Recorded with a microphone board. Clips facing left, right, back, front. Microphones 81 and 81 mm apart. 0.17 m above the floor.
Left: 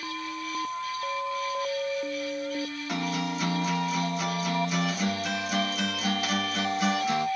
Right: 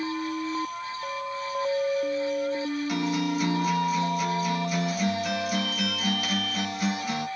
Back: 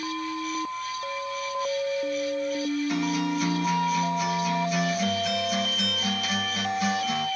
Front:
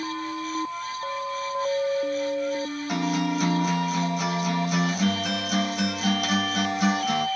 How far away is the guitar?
About 2.5 m.